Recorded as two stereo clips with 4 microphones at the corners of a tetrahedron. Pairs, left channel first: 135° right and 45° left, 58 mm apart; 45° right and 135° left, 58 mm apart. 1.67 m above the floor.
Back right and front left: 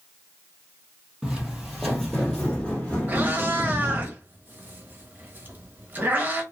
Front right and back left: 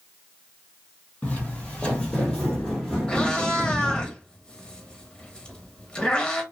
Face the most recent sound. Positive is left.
turn(degrees=20)